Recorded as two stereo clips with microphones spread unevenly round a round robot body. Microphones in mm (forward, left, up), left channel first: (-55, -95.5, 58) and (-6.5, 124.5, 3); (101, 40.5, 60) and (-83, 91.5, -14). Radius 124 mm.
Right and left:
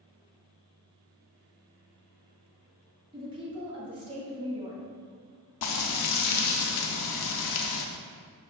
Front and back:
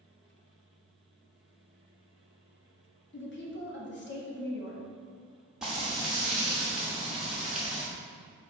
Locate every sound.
3.1 s a woman speaking: 20° left, 1.6 m
5.6 s frying: 105° right, 0.6 m